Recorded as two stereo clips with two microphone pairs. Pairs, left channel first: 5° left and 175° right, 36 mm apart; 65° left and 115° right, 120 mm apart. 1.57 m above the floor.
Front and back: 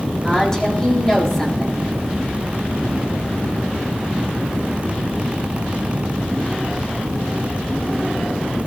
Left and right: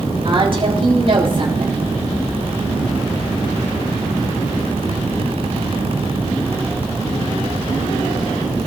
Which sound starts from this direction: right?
A woman speaking, at 0.2 s.